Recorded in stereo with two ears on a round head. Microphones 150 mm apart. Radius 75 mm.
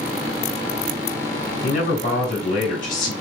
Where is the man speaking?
50° left (ahead or behind), 4 m.